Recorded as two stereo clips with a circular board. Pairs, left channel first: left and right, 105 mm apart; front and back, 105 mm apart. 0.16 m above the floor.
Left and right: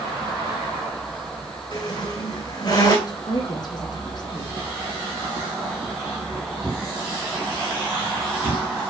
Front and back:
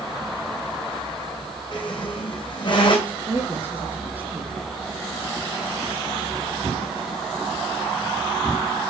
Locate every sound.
1.7 s a squeak: 40° left, 3.5 m
3.1 s a woman speaking: 115° left, 2 m